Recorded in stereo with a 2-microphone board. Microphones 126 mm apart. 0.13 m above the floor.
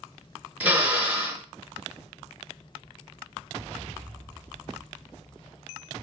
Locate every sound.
0.6 s a drill: 15° right (ahead or behind), 1.5 m